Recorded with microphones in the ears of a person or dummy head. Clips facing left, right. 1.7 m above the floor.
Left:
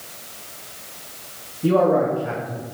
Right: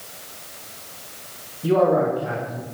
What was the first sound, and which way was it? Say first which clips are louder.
A man speaking: left 1 dB; 30° left (ahead or behind).